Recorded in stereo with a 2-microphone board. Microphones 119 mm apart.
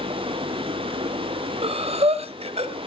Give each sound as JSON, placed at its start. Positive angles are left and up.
{"t": 0.0, "sound": "running water", "side_deg": -50, "distance_m": 2.5}
{"t": 1.6, "sound": "breathing", "side_deg": -55, "distance_m": 1.4}